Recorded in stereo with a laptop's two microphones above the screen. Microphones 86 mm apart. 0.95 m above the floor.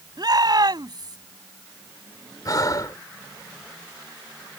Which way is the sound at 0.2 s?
50° right (ahead or behind).